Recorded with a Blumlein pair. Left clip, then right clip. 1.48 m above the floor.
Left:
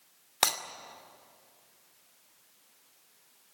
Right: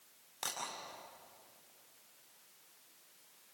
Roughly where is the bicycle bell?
No bicycle bell in this recording.